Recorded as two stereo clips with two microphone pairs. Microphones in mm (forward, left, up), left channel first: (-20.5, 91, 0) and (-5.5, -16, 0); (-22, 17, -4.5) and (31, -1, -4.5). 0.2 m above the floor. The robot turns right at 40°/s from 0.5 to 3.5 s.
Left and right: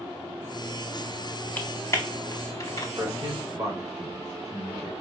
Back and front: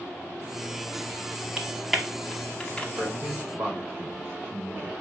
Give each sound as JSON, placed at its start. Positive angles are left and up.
{"t": 1.6, "sound": "typing on a keyboard", "azimuth_deg": 50, "distance_m": 0.6}
{"t": 3.0, "sound": "a man speaking", "azimuth_deg": -55, "distance_m": 1.4}